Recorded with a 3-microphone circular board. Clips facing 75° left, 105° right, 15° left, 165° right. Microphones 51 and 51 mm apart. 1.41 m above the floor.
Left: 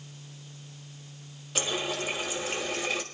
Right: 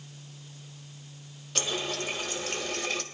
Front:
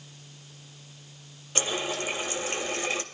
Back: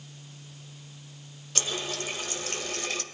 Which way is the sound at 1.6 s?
5° left.